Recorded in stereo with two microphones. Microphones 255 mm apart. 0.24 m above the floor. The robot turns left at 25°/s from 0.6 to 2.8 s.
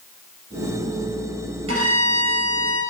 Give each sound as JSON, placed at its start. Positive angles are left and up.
{"t": 1.7, "sound": "a violin", "side_deg": -65, "distance_m": 1.0}